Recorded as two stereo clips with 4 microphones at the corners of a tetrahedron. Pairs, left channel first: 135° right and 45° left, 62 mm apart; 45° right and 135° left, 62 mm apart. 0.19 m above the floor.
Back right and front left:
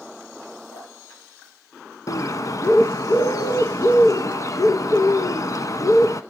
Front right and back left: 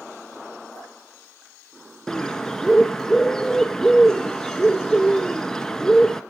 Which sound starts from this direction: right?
Dripping, at 0.7 s.